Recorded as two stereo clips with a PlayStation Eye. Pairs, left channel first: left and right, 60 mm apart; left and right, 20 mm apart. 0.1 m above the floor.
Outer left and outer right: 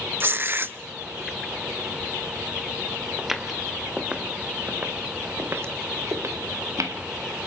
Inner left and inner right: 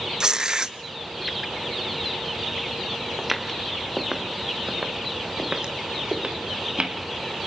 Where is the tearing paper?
35° right (ahead or behind), 0.5 m.